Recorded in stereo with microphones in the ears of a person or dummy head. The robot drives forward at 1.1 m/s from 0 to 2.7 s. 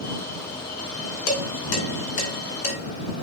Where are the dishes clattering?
80° left, 3 m; by 2.8 s 55° left (ahead or behind), 3.5 m.